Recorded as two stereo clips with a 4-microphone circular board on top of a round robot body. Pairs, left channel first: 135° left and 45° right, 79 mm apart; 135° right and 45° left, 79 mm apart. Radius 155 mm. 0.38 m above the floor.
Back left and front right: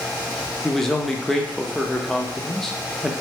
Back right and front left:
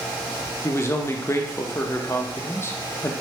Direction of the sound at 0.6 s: 145° right.